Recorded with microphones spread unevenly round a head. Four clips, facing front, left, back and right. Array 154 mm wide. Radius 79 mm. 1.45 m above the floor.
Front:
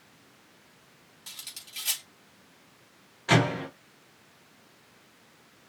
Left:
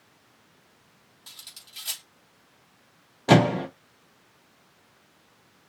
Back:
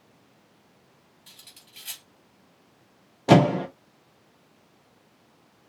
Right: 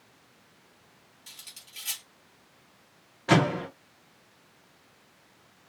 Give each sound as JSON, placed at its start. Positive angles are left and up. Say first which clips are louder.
{"t": 1.3, "sound": "cutlery clinking", "louder": "left 2 dB, front 6 dB", "azimuth_deg": 30, "distance_m": 2.0}
{"t": 3.3, "sound": "a microwave", "louder": "left 4 dB, back 7 dB", "azimuth_deg": 155, "distance_m": 1.0}